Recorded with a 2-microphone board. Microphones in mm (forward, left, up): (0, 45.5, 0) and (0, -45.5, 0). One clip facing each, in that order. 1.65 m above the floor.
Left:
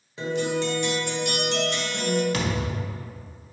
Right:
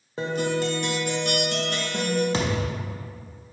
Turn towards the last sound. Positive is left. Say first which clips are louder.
# right 1 dB
turn(degrees=-25)  # may be behind; listen again after turning